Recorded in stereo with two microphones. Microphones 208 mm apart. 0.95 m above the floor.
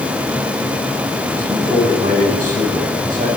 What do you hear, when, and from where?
1.4 s a man speaking: 40° right (ahead or behind), 9 m